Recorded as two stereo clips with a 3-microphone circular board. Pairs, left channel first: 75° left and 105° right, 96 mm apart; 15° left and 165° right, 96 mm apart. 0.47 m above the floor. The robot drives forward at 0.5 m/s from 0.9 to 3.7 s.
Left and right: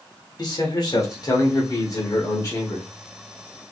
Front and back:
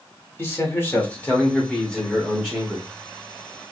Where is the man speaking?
75° left, 1.7 m; by 2.9 s 120° left, 1.8 m.